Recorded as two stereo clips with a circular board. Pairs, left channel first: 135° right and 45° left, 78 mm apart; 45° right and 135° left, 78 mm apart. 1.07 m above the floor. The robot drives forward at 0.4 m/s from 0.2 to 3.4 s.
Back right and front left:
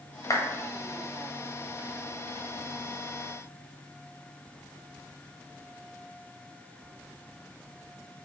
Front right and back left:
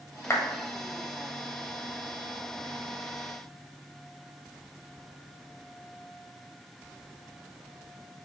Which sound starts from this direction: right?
A clap, at 0.3 s.